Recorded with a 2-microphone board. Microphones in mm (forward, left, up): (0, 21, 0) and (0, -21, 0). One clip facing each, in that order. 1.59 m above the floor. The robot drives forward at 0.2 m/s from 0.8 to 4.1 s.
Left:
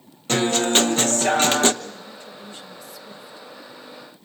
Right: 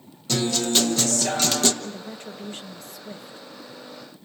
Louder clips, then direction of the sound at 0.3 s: Left 4 dB; 45° left (ahead or behind).